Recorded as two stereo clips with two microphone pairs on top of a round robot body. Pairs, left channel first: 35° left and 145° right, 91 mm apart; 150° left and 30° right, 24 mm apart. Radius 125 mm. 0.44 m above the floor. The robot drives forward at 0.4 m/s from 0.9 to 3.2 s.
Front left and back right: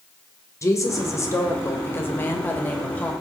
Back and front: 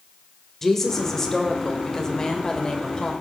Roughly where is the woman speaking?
Left.